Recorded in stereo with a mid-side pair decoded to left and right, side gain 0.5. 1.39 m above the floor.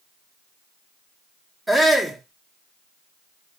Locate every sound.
1.7 s a shout: 10° right, 1.2 m